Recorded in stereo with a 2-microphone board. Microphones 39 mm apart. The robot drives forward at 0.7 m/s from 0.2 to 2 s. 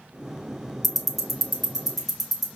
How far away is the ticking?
About 0.6 m.